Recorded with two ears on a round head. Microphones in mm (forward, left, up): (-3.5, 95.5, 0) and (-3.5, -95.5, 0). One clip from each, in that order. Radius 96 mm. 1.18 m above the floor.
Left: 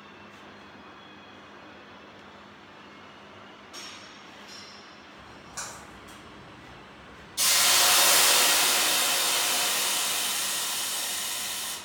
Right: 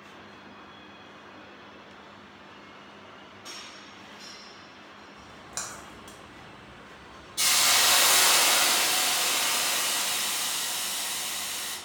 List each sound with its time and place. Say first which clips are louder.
5.1 s a splash: right 1 dB; 35° right (ahead or behind), 0.7 m
7.4 s a hiss: even; 5° left (ahead or behind), 0.8 m